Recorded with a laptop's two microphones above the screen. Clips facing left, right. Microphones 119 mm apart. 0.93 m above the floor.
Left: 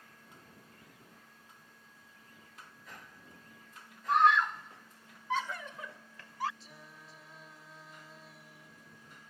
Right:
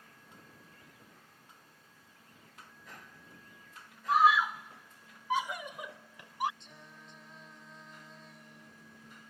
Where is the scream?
5° right (ahead or behind); by 6.5 s 15° right (ahead or behind).